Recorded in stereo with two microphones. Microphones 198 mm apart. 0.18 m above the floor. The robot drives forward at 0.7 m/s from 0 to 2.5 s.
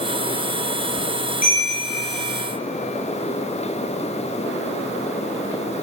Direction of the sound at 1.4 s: 45° left (ahead or behind).